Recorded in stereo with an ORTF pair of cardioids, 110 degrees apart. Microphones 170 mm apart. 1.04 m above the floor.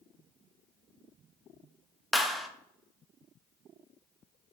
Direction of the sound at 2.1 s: Straight ahead.